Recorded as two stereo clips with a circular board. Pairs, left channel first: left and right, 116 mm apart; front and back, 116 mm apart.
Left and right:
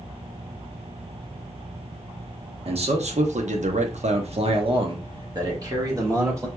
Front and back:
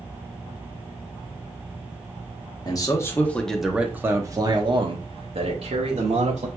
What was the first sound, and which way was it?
A man speaking, 55° right.